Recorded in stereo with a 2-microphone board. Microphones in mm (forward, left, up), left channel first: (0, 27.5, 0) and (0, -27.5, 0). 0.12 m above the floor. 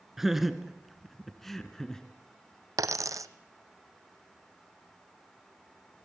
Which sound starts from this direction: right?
A dropped coin, at 2.8 s.